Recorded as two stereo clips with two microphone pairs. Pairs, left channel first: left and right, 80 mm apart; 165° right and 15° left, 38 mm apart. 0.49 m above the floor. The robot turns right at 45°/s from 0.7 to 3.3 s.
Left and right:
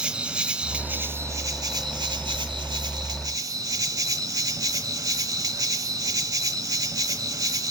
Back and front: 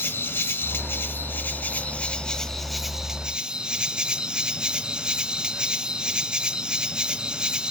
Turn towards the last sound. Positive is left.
turn(degrees=-50)